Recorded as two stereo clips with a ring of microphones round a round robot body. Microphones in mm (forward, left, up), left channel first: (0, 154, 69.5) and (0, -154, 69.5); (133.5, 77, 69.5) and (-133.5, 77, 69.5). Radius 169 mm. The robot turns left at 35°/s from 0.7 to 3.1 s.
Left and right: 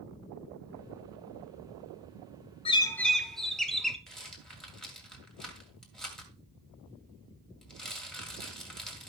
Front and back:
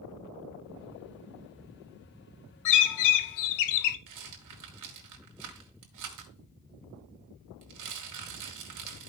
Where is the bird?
15° left, 0.8 m; by 4.0 s straight ahead, 0.8 m.